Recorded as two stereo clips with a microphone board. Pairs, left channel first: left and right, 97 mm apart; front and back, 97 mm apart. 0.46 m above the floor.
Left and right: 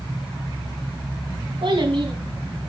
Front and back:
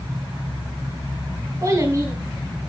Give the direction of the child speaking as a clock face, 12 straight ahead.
4 o'clock.